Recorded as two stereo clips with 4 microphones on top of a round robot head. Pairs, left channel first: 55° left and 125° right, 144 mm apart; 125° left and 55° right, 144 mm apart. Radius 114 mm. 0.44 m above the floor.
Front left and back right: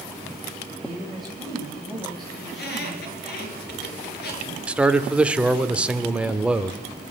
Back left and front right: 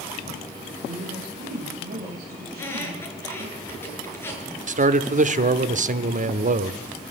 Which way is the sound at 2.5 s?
50° left.